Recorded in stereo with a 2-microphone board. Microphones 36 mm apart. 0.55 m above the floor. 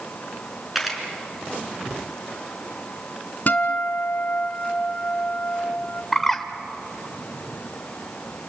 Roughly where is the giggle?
I don't hear a giggle.